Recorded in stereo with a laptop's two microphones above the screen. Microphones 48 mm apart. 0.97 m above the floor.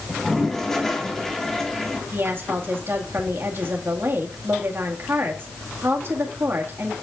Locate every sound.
0.1 s a toilet flushing: 10° left (ahead or behind), 1.1 m
2.1 s a woman speaking: 50° right (ahead or behind), 1.9 m